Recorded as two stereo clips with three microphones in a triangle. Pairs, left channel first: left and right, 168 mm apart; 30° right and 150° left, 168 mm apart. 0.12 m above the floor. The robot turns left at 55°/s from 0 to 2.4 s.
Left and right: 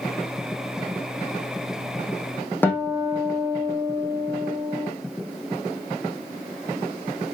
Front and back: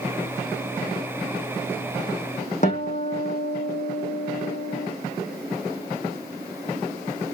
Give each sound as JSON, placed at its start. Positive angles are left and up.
{"t": 2.6, "sound": "a guitar", "azimuth_deg": 10, "distance_m": 1.7}